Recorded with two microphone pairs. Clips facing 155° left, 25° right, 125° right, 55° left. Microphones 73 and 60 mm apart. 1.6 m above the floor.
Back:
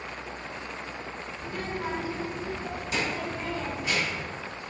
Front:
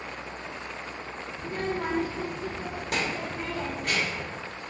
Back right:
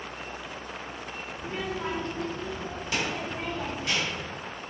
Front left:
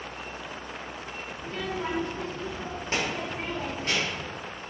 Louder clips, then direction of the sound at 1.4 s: Front 4 dB, even; 75° right.